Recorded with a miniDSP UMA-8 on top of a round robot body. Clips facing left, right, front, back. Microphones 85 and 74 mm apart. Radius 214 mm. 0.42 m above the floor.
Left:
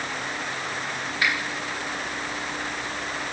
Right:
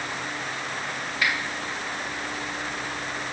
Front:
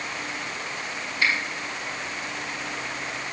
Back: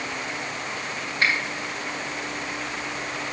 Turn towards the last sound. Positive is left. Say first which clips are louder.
# left 1 dB, back 1 dB
turn(degrees=145)